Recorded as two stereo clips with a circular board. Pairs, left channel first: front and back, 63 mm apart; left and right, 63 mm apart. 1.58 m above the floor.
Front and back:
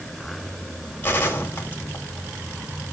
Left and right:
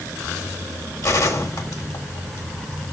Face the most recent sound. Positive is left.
turn(degrees=60)